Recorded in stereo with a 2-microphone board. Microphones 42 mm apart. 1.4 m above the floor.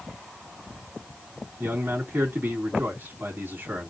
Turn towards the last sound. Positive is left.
turn(degrees=-55)  # may be behind; listen again after turning